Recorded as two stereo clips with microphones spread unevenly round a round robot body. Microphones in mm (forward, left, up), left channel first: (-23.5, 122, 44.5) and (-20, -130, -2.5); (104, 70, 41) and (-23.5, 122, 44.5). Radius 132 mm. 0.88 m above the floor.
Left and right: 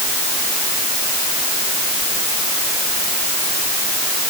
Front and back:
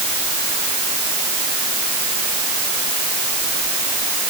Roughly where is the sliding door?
No sliding door in this recording.